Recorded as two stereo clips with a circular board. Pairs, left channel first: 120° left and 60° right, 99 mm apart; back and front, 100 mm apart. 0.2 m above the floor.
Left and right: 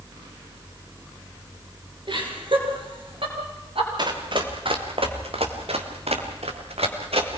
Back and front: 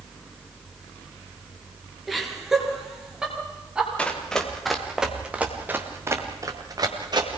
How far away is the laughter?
About 3.5 m.